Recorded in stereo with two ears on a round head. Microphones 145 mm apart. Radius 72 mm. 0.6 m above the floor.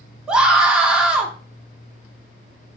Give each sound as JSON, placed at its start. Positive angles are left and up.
{"t": 0.3, "sound": "a scream", "side_deg": -5, "distance_m": 1.0}